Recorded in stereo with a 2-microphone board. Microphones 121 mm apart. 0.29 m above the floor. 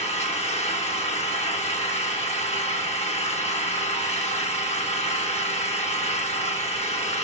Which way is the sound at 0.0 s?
70° left (ahead or behind).